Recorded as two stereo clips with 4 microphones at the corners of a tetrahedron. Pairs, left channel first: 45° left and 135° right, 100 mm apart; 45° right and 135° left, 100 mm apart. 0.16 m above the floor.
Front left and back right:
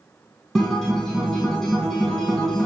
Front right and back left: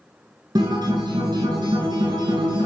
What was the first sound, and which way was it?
A guitar, 130° left.